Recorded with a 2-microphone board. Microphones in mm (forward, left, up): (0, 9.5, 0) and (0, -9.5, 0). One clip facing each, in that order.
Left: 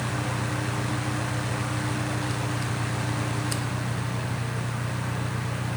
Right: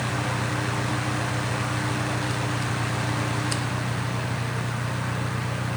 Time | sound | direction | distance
0.0 | an engine running | 55° right (ahead or behind) | ?